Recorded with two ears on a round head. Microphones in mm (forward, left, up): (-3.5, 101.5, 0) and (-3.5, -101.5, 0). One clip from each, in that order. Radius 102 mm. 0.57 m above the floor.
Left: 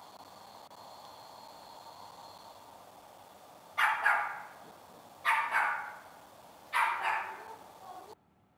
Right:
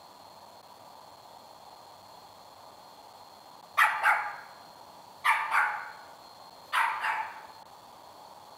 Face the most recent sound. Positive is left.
turn(degrees=-60)  # may be behind; listen again after turning